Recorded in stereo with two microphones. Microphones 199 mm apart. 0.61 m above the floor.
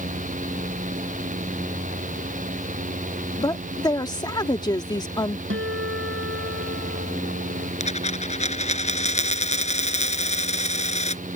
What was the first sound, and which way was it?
A woman speaking, 20° left (ahead or behind).